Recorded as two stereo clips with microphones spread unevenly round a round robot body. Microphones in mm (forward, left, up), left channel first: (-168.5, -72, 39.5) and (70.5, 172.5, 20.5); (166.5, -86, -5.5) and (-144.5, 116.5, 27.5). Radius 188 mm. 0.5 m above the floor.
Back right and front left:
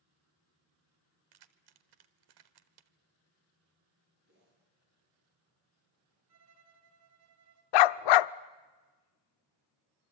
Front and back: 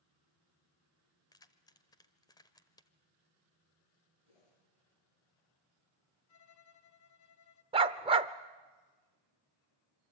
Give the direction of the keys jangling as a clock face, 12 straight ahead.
10 o'clock.